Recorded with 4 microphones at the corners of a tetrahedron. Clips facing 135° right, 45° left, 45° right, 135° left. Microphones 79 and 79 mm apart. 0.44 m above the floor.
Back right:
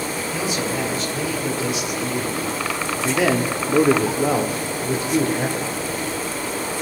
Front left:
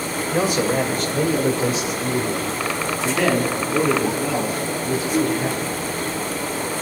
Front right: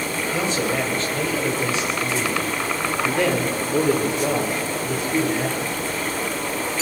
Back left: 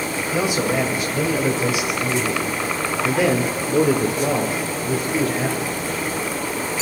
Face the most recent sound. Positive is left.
turn(degrees=-130)